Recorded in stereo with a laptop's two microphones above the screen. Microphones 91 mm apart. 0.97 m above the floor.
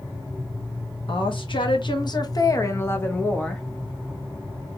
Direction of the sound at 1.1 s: 65° left (ahead or behind).